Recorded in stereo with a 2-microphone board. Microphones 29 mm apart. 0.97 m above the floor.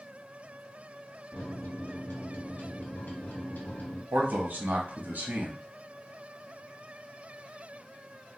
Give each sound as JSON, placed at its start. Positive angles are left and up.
{"t": 1.3, "sound": "a microwave", "side_deg": 80, "distance_m": 0.9}
{"t": 4.1, "sound": "a man speaking", "side_deg": -65, "distance_m": 0.8}